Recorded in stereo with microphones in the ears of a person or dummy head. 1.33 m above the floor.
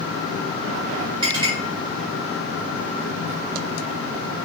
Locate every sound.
1.2 s a clink: 20° right (ahead or behind), 1.3 m